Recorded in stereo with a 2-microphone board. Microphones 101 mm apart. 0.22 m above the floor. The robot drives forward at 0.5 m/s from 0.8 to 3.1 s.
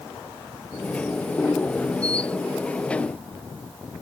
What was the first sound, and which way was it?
Only background noise.